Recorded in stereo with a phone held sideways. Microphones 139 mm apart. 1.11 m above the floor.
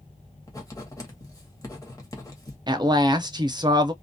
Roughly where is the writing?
Left.